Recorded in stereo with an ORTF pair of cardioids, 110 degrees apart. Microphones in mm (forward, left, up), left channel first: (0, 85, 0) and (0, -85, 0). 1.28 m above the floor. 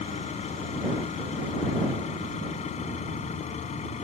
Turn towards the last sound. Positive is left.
turn(degrees=45)